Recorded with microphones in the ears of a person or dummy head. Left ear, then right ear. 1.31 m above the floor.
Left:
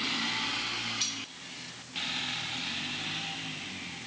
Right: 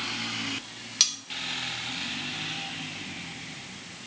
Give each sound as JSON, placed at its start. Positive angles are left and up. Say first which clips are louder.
{"t": 1.0, "sound": "cutlery clinking", "louder": "right 12 dB", "side_deg": -60, "distance_m": 2.0}